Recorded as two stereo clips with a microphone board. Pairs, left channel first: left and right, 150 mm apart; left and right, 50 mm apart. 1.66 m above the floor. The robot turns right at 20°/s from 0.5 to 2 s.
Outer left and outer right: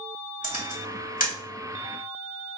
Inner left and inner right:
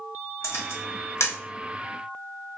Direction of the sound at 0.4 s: 60° left (ahead or behind).